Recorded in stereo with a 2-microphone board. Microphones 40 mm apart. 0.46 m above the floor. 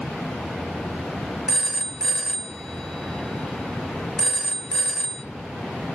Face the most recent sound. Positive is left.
turn(degrees=10)  # may be behind; listen again after turning